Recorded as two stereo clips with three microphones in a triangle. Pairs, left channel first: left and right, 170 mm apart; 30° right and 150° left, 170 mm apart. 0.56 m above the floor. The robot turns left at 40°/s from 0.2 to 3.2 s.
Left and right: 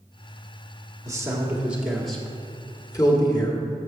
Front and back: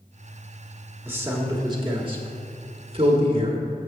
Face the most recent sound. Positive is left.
turn(degrees=130)